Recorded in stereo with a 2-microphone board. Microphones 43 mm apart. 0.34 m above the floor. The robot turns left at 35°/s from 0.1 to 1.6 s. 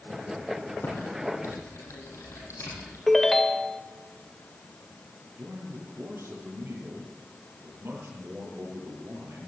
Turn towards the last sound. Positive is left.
turn(degrees=-65)  # may be behind; listen again after turning